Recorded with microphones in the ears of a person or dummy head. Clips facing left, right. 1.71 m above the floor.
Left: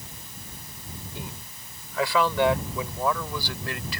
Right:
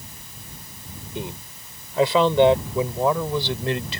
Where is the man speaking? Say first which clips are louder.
Right 12 dB; 25° right (ahead or behind).